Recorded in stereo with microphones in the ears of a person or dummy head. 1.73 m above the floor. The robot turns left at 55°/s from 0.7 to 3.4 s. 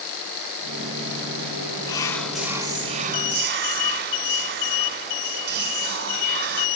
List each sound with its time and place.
1.9 s whispering: 20° left, 1.0 m; by 6.7 s 60° right, 1.0 m